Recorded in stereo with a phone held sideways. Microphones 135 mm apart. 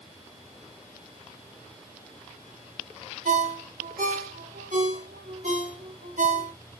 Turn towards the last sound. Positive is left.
turn(degrees=-70)  # may be behind; listen again after turning